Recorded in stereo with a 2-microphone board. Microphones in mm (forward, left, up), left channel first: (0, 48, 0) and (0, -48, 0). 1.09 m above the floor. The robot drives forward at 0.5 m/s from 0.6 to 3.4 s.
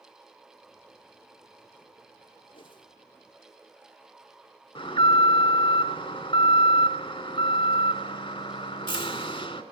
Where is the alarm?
65° left (ahead or behind), 2.5 m.